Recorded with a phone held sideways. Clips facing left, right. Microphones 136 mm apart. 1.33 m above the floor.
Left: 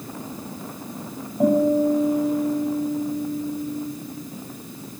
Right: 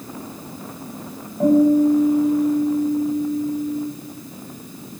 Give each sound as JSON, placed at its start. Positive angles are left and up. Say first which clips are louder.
{"t": 1.4, "sound": "a guitar", "louder": "right 4 dB", "side_deg": 10, "distance_m": 9.0}